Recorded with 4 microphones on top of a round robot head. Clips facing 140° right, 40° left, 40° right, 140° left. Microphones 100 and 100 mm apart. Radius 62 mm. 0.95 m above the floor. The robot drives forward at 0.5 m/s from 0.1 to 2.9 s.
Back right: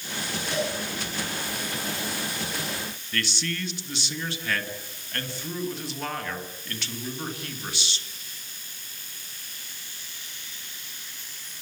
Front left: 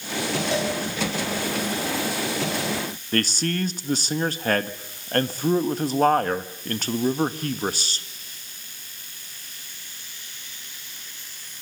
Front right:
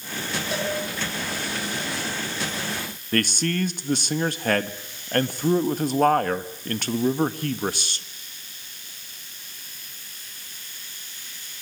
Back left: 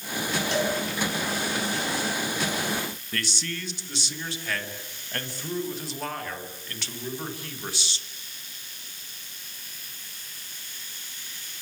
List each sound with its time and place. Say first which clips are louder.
0.5 s a cowbell: front left 1 dB, back left 1 dB; 45° left, 8 m
3.1 s a man speaking: front left 8 dB, front right 13 dB; 5° right, 1.7 m